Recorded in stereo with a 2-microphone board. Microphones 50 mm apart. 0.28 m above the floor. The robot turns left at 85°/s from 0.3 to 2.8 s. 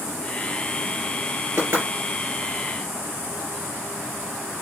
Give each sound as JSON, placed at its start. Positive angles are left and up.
{"t": 1.6, "sound": "knocking", "side_deg": -60, "distance_m": 4.0}